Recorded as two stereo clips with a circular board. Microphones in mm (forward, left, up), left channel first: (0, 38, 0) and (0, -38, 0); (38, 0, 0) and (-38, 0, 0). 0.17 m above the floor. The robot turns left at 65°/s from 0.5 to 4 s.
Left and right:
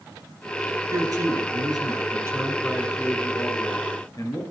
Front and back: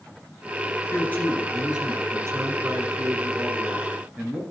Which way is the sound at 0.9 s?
50° right.